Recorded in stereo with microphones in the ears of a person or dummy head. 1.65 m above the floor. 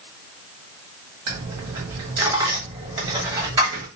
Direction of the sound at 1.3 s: 20° right (ahead or behind).